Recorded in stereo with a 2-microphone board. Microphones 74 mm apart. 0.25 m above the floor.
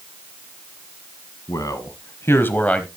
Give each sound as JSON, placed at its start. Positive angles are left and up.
{"t": 1.5, "sound": "a man speaking", "side_deg": 55, "distance_m": 1.8}